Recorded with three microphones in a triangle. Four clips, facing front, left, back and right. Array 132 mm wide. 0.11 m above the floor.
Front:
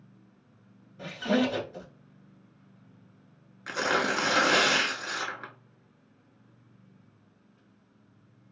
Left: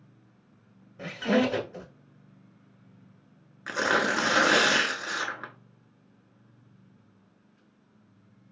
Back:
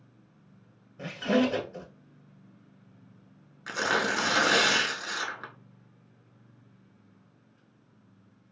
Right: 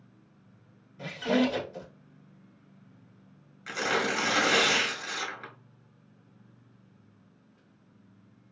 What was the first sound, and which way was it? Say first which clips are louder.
A squeak: left 1 dB, back 1 dB; 110° left.